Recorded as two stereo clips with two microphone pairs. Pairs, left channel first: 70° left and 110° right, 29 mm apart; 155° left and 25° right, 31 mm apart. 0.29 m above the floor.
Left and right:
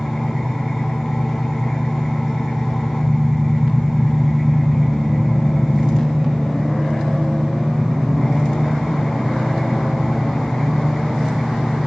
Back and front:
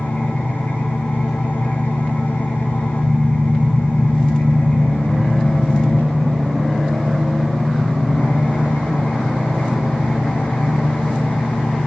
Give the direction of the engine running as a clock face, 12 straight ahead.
6 o'clock.